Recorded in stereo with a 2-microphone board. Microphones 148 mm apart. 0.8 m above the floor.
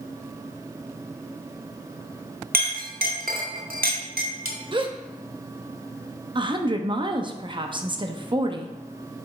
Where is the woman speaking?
35° right (ahead or behind), 0.7 m.